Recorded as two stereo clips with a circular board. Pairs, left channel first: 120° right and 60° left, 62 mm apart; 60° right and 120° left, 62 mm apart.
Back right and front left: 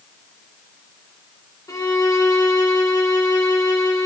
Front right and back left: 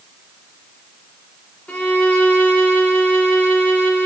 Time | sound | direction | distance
1.7 | a violin | 130° right | 4 m